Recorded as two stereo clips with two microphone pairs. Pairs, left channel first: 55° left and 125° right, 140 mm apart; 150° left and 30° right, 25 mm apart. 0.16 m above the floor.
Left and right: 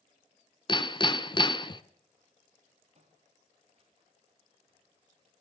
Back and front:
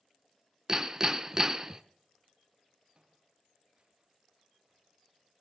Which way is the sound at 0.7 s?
20° left.